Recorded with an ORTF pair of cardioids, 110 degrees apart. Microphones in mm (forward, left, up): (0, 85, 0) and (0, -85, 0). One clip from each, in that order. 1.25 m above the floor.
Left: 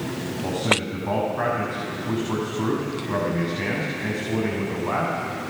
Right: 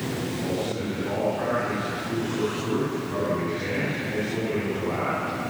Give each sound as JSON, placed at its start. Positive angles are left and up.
{"t": 0.4, "sound": "a man speaking", "azimuth_deg": 50, "distance_m": 9.0}